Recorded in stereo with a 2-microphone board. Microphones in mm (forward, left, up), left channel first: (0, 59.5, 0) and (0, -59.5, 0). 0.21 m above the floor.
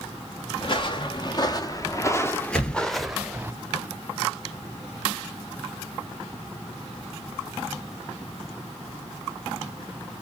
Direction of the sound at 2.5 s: 5° left (ahead or behind).